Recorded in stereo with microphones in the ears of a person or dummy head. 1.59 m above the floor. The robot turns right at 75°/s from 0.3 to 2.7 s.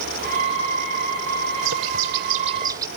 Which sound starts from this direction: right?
A bird, at 1.6 s.